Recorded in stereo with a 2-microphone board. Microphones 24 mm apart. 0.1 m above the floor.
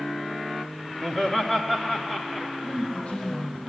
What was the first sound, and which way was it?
Laughter, 15° left (ahead or behind).